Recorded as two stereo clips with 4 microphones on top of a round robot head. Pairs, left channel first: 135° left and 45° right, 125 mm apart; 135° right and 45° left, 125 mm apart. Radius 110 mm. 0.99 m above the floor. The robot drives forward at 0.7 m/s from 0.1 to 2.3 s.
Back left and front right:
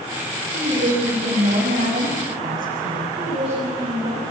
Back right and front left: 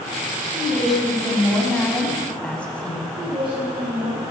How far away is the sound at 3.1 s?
About 7.5 m.